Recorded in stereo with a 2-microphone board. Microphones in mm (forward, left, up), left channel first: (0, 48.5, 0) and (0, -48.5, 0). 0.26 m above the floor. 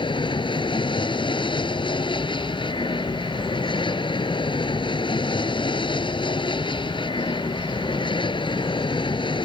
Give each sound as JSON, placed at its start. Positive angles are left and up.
{"t": 0.0, "sound": "an aircraft", "side_deg": 55}